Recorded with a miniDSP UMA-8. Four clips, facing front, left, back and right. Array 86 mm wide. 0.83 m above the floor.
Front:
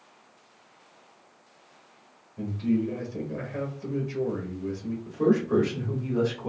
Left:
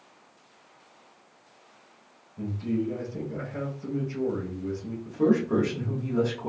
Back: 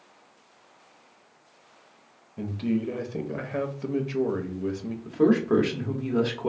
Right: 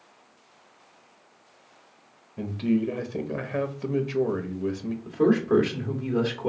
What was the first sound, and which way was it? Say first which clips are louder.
A man speaking: right 4 dB, front 1 dB; 120° right.